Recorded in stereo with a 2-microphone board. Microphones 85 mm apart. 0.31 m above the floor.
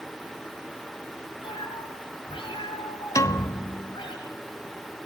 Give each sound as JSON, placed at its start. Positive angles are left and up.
{"t": 1.4, "sound": "a cat meowing", "side_deg": 85, "distance_m": 7.0}
{"t": 3.1, "sound": "a piano", "side_deg": 40, "distance_m": 0.8}